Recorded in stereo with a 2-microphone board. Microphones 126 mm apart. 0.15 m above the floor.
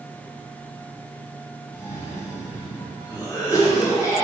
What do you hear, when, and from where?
1.7 s a cough: 25° left (ahead or behind), 1.1 m